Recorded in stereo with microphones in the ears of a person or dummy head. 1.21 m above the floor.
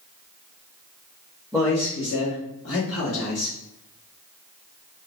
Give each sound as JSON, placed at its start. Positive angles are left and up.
{"t": 1.5, "sound": "a man speaking", "side_deg": 0, "distance_m": 0.6}